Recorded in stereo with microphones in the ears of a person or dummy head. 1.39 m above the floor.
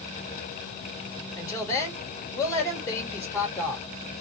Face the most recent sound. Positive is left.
turn(degrees=20)  # may be behind; listen again after turning